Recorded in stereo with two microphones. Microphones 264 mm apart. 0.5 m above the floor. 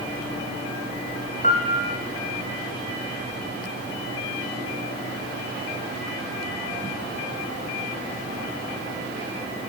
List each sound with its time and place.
1.4 s a piano: 30° left (ahead or behind), 4.5 m